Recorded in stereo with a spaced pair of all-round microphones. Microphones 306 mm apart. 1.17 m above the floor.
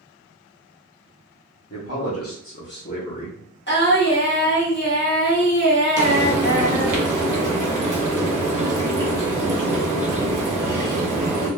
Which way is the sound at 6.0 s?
80° right.